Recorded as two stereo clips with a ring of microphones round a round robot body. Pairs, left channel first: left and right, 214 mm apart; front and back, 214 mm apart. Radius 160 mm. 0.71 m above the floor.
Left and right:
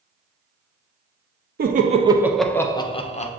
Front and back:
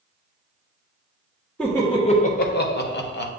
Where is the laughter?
80° right, 0.6 m; by 3.3 s 35° left, 1.0 m.